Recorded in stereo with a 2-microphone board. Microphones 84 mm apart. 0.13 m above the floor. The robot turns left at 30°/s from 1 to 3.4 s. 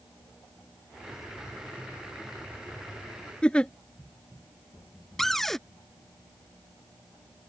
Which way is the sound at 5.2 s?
5° left (ahead or behind).